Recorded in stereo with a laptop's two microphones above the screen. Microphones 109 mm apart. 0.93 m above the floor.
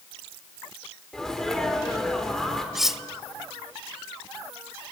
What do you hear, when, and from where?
1.1 s a sneeze: 5° left (ahead or behind), 3.5 m
2.8 s cutlery clinking: 5° right (ahead or behind), 0.5 m